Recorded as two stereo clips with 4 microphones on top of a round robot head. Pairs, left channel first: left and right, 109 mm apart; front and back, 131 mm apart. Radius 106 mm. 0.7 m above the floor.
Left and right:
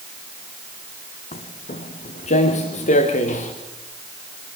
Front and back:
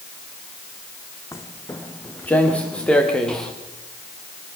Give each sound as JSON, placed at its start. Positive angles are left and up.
{"t": 1.3, "sound": "footsteps", "azimuth_deg": 70, "distance_m": 2.0}